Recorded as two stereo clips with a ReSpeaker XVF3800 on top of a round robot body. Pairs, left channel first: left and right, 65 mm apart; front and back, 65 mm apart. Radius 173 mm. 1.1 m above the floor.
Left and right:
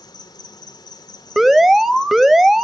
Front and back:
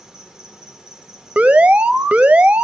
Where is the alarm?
165° right, 1.2 m.